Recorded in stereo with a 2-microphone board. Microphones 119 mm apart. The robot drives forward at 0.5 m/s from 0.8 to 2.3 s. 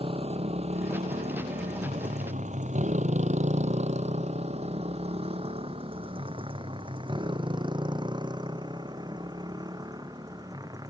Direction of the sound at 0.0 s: 55° right (ahead or behind).